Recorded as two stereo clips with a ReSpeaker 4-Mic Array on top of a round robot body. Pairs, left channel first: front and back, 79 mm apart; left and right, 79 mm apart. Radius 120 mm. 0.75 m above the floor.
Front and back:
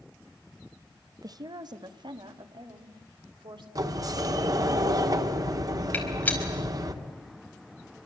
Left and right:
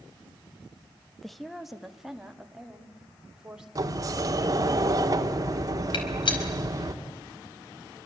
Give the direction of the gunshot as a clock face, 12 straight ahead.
10 o'clock.